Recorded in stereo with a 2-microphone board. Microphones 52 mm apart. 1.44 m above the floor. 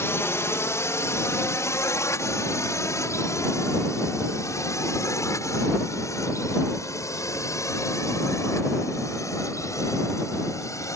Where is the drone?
55° left (ahead or behind); by 10.9 s 80° left.